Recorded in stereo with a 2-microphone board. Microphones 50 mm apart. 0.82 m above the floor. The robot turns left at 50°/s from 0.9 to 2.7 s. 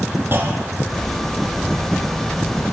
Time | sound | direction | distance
0.3 | a clunk | 50° right (ahead or behind) | 4.5 m